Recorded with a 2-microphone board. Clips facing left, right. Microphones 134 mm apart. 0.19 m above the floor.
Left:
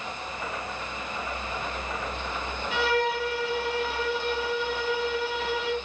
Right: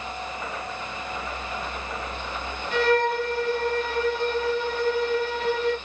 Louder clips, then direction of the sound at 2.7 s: Right 5 dB; 10° left (ahead or behind).